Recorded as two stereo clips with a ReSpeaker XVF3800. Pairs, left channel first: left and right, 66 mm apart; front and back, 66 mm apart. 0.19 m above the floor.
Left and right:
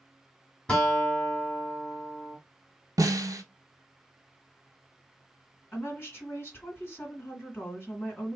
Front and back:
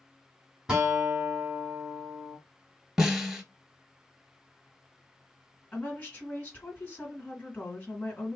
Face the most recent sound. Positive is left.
turn(degrees=50)